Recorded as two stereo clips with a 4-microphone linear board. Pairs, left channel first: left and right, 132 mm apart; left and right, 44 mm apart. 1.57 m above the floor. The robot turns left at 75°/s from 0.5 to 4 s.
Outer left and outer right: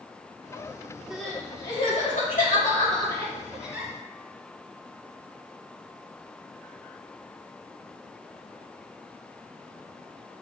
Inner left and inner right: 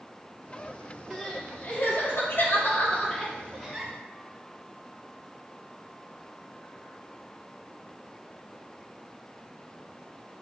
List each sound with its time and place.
1.1 s crying: 5° right (ahead or behind), 2 m; by 3.9 s 25° right (ahead or behind), 2 m